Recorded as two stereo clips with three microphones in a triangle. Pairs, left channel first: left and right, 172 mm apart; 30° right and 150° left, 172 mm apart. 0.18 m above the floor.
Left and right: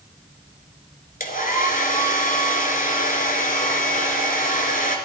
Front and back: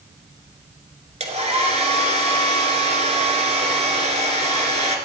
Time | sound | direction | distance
1.2 | a hair dryer | 110° left | 1.9 m